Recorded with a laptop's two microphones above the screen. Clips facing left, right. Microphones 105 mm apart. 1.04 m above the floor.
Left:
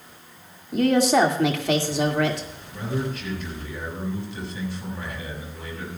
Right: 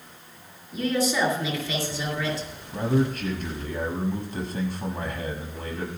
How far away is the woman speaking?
About 2 m.